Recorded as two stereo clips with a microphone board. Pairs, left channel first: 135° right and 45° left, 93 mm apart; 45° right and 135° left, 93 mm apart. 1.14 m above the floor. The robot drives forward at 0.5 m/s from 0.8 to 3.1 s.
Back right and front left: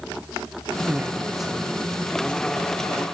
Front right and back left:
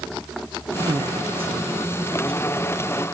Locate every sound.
0.9 s a man speaking: 110° left, 0.6 m; by 2.8 s 155° left, 1.3 m